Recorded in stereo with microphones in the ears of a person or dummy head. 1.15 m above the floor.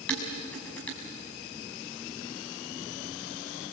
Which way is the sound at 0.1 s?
15° left (ahead or behind).